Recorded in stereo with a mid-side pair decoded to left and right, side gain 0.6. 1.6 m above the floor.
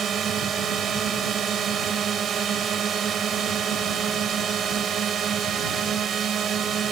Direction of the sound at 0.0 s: 45° right.